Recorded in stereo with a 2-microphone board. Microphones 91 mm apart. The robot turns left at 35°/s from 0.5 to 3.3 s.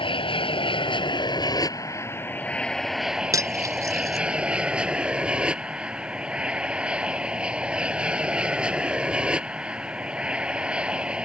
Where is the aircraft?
85° left; by 11.3 s 10° right.